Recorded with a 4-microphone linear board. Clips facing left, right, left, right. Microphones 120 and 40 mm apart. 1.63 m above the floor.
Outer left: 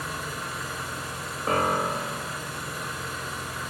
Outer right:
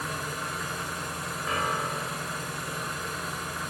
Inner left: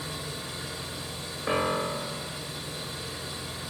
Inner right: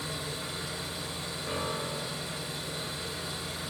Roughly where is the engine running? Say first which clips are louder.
Even, even; centre.